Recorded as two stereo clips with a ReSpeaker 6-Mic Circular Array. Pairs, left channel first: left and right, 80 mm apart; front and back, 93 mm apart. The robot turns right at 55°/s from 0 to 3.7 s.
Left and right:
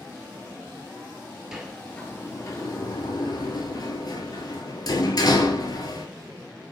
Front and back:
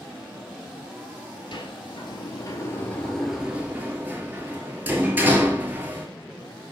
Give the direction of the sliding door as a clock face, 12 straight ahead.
12 o'clock.